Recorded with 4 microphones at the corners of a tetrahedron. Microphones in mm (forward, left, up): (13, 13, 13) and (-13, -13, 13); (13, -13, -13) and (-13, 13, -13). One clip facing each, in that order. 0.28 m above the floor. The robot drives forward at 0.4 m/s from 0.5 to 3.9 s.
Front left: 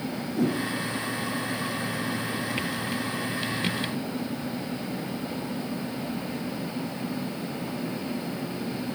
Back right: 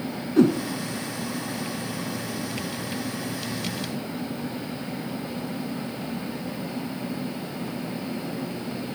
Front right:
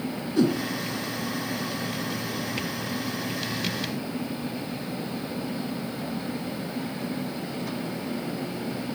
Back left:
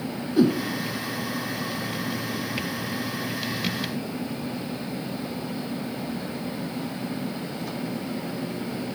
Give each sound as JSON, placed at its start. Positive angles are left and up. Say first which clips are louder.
{"t": 0.4, "sound": "a whoosh", "louder": "back right 8 dB, back left 3 dB", "azimuth_deg": -145, "distance_m": 1.7}